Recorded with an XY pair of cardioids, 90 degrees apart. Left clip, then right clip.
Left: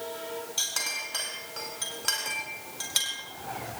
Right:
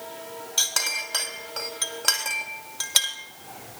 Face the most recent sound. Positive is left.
turn(degrees=-55)